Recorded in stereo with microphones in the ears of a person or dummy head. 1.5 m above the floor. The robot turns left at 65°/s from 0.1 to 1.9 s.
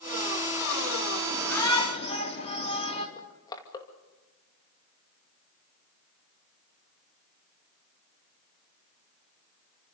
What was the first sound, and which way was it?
A shout, straight behind.